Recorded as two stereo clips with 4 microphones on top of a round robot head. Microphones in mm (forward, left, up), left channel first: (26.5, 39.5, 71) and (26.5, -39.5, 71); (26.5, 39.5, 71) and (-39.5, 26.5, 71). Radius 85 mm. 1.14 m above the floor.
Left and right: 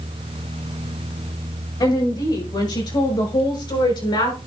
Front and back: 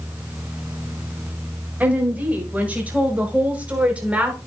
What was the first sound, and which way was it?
A woman speaking, 125° left.